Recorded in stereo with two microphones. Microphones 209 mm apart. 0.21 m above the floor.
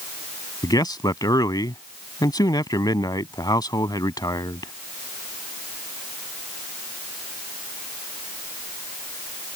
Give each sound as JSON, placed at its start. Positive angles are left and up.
{"t": 0.6, "sound": "a man speaking", "side_deg": 20}